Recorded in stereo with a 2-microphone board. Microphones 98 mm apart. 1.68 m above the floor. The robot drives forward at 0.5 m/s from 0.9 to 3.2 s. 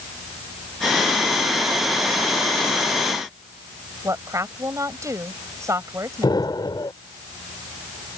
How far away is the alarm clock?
No alarm clock in this recording.